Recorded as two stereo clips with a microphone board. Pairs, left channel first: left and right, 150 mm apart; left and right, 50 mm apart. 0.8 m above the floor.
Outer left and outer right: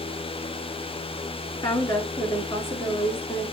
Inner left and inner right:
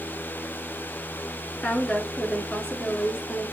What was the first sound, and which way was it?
A woman speaking, 25° left (ahead or behind).